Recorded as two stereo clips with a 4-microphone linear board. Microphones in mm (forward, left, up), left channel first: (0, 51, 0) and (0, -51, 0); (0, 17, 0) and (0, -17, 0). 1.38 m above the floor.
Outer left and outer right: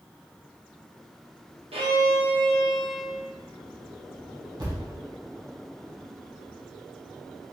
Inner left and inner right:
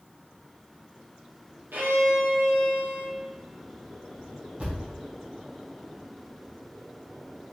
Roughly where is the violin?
Right.